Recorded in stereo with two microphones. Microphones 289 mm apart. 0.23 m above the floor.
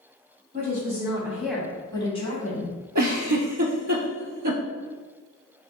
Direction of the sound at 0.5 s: 30° right (ahead or behind).